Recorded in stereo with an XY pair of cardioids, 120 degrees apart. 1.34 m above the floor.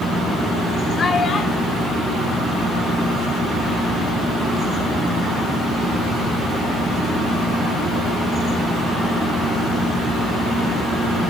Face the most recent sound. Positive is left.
turn(degrees=75)